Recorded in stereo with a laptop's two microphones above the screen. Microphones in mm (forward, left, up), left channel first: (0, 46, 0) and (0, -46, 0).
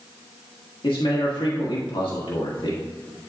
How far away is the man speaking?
About 1.4 m.